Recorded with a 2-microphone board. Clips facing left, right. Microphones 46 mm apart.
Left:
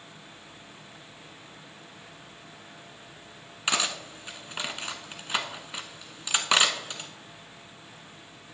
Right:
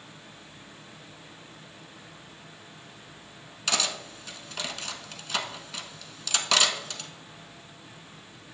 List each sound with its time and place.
3.7 s cutlery clinking: 25° left (ahead or behind), 0.9 m